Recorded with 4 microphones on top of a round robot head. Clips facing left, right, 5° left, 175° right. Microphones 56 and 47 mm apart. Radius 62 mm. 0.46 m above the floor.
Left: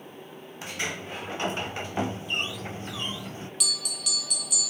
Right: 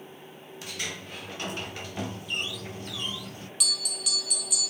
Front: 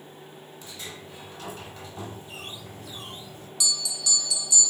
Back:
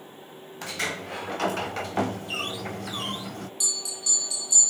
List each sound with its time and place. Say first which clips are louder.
0.6 s a sliding door: left 4 dB, back 12 dB; 155° left, 0.7 m
3.6 s a bell: right 3 dB, front 4 dB; straight ahead, 2.5 m